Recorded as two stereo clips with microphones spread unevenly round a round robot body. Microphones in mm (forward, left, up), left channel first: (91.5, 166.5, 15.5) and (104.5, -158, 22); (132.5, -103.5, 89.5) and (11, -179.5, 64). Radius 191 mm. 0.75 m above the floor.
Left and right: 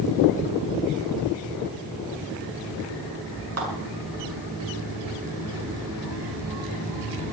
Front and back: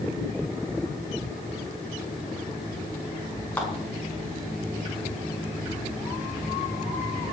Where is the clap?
45° right, 7 m.